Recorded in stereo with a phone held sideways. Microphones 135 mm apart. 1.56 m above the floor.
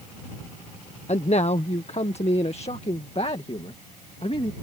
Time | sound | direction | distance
1.1 | a man speaking | 60° left (ahead or behind) | ?